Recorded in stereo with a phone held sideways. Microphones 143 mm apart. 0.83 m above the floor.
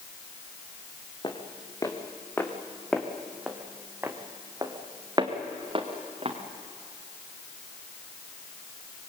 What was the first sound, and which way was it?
Footsteps, 30° left (ahead or behind).